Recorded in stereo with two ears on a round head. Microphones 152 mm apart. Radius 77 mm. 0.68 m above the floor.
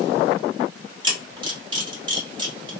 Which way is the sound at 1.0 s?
30° right (ahead or behind).